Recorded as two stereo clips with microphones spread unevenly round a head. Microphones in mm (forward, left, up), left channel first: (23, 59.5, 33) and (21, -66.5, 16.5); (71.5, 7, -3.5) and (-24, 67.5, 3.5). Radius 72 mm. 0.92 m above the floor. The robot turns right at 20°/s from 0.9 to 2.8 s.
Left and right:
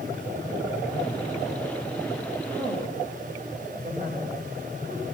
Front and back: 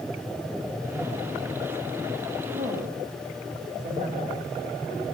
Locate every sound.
2.5 s a woman speaking: 150° right, 5 m; by 5.0 s 140° right, 5 m